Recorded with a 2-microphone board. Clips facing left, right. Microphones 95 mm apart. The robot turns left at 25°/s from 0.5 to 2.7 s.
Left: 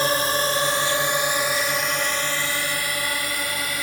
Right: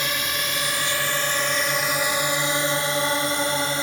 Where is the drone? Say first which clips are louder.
Left 6 dB; 35° left (ahead or behind); by 3.8 s 30° right (ahead or behind).